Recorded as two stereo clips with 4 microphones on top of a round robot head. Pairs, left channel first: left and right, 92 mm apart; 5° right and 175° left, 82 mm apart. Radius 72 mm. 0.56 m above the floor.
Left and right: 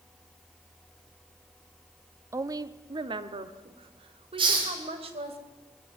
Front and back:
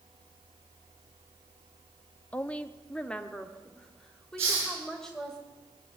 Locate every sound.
2.3 s a woman speaking: 65° right, 0.8 m; by 5.4 s 90° right, 3 m
4.4 s a hiss: 120° right, 5.5 m